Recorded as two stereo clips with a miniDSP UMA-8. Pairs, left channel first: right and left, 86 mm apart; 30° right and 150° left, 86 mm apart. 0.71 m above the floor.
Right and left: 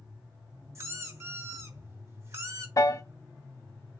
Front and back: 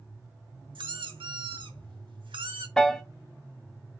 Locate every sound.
0.8 s a squeak: 145° left, 1.0 m
2.8 s a piano: 110° right, 0.5 m